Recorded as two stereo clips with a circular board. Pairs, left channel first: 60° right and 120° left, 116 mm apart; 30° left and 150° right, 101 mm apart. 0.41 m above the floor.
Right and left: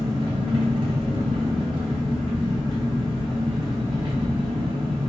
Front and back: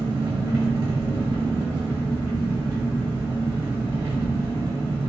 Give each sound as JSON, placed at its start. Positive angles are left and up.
{"t": 0.0, "sound": "an engine running", "azimuth_deg": 155, "distance_m": 2.0}